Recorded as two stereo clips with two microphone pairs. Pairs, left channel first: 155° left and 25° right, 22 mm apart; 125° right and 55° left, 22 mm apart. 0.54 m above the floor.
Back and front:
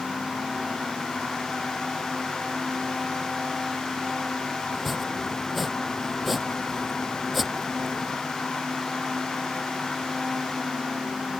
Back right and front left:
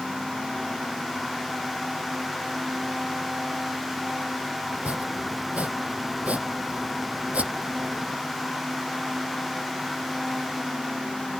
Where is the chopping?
60° left.